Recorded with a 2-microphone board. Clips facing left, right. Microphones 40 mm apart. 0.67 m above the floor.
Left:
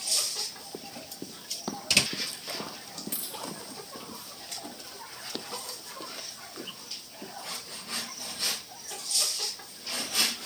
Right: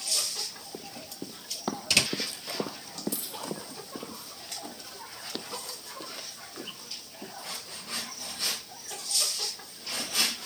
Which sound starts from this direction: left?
A dropped coin, at 3.1 s.